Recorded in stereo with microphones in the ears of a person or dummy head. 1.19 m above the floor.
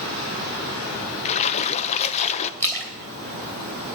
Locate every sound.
1.2 s a splash: 40° left (ahead or behind), 0.7 m
2.6 s a splash: 20° left (ahead or behind), 2.5 m